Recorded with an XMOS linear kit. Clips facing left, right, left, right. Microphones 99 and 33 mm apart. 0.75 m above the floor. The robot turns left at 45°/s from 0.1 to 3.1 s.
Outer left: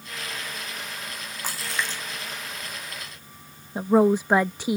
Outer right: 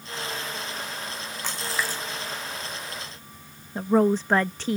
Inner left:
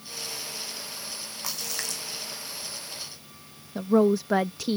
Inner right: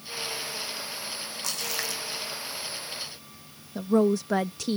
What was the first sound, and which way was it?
A splash, 10° left (ahead or behind).